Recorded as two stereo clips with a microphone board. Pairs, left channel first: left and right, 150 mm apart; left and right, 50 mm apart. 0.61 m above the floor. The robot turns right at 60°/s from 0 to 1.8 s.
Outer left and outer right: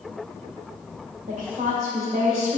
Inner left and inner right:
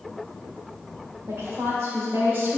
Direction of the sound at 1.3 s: 70° right.